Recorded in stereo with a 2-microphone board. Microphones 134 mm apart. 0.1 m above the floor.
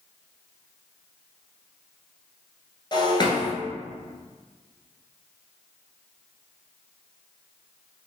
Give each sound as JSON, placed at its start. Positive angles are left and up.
{"t": 2.9, "sound": "breaking glass", "side_deg": 35, "distance_m": 1.0}